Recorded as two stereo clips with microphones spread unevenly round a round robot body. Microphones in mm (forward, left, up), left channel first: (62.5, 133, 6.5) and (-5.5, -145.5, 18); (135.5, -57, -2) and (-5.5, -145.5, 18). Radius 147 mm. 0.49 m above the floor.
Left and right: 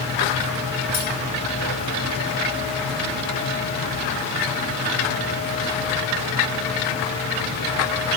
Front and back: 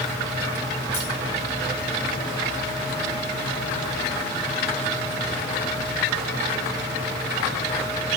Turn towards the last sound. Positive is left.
turn(degrees=50)